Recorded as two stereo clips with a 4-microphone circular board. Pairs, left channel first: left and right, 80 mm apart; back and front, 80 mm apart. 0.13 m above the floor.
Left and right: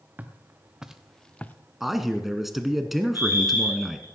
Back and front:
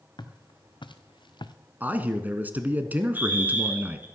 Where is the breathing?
No breathing in this recording.